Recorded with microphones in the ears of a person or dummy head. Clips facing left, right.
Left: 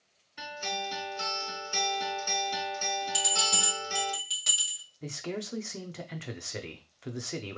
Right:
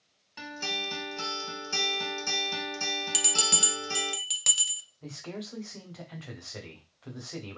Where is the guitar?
85° right, 2 m.